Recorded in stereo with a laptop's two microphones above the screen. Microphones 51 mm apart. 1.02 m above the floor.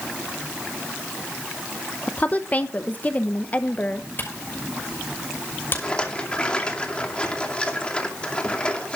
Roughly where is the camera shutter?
Left.